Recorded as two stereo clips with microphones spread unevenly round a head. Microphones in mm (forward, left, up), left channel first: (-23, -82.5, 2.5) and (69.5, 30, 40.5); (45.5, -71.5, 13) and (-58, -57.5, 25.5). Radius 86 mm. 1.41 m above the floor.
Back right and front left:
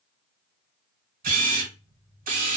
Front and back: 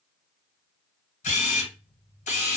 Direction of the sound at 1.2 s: 20° left.